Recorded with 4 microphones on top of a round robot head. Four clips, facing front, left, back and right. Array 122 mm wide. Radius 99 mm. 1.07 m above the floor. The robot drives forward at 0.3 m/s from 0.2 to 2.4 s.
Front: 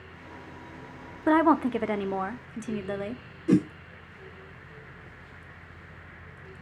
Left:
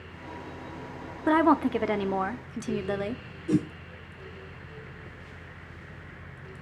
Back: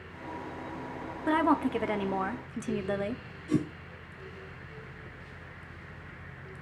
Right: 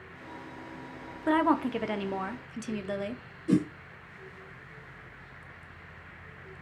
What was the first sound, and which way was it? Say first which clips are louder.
A woman speaking: left 4 dB, front 5 dB; 35° left.